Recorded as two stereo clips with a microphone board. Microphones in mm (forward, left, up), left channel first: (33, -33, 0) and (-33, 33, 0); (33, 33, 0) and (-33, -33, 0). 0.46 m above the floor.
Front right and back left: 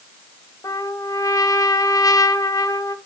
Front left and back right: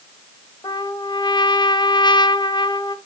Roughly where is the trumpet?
Ahead.